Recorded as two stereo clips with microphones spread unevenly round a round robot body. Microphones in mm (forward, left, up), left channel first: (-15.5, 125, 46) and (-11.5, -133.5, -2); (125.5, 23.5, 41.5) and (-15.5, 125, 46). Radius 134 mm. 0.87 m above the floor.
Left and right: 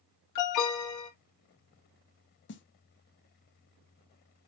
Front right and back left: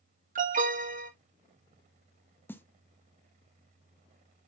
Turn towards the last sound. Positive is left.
turn(degrees=40)